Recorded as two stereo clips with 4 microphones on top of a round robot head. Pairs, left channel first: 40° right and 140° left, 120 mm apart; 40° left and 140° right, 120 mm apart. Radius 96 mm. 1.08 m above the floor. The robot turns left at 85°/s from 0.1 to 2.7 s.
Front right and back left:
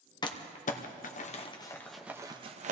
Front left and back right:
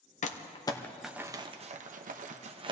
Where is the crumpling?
15° left, 0.9 m; by 2.7 s 165° left, 0.9 m.